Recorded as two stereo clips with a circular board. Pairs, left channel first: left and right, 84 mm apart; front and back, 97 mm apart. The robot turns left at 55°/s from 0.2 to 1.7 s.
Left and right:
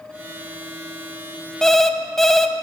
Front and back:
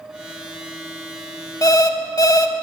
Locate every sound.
1.6 s an alarm clock: 10° left, 0.6 m; by 2.5 s 5° left, 0.6 m